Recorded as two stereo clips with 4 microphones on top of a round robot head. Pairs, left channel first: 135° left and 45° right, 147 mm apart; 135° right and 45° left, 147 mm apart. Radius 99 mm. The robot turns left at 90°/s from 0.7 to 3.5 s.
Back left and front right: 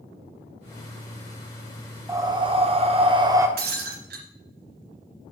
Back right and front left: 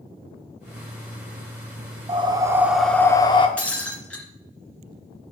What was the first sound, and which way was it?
Breathing, 20° left.